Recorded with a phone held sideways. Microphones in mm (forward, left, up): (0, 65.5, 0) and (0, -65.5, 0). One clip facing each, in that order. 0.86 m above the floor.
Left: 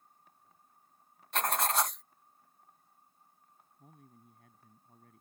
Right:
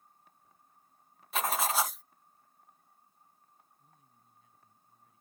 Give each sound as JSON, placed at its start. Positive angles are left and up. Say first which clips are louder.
{"t": 1.3, "sound": "writing", "louder": "even", "side_deg": -5}
{"t": 3.8, "sound": "a man speaking", "louder": "left 8 dB", "side_deg": 65}